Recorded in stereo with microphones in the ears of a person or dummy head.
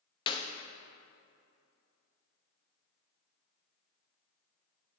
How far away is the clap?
About 0.5 m.